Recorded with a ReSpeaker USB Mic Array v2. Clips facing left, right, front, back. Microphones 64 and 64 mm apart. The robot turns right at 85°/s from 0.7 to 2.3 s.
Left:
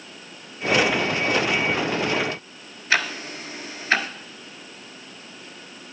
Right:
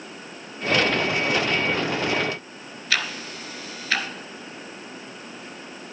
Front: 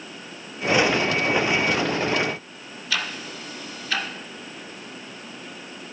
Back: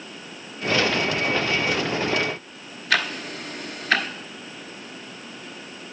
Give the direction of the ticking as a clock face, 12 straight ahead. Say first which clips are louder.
Left 4 dB, back 5 dB; 7 o'clock.